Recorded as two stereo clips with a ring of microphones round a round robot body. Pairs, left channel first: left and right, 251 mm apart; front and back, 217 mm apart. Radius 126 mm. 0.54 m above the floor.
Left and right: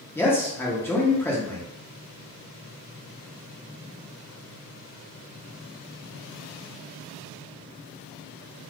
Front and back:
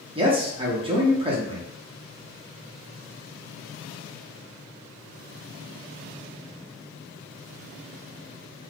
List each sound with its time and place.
0.1 s a man speaking: 160° left, 0.7 m